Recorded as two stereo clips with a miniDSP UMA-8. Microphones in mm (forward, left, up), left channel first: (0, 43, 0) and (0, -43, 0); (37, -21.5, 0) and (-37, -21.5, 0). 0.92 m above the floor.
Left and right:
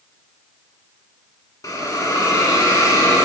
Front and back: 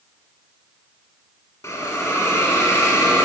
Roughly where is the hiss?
Ahead left.